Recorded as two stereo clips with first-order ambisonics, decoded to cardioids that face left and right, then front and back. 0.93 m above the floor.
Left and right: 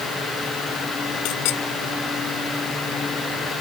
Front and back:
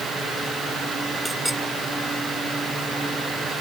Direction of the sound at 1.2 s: 95° left.